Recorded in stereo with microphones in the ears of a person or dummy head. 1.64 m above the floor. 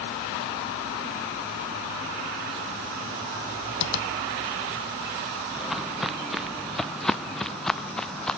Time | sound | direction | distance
3.8 | tapping | 85° left | ?
5.6 | footsteps | 5° left (ahead or behind) | ?